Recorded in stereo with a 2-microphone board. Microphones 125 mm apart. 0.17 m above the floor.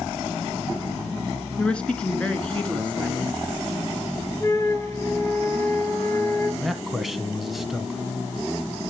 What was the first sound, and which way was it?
A woman speaking, 10° left (ahead or behind).